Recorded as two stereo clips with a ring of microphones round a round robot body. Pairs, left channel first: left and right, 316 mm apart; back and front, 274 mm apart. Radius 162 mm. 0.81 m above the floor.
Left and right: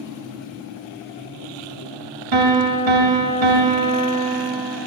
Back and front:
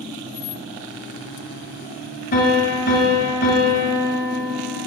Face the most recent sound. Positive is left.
turn(degrees=-115)